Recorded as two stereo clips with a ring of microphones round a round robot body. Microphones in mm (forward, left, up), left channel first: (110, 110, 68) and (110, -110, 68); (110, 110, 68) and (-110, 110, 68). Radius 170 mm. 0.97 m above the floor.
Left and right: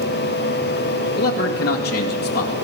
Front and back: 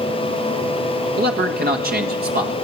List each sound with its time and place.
1.2 s a man speaking: 135° left, 1.8 m